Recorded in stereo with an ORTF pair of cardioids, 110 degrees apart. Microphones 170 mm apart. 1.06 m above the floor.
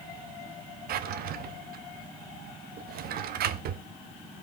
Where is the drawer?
65° right, 1.0 m.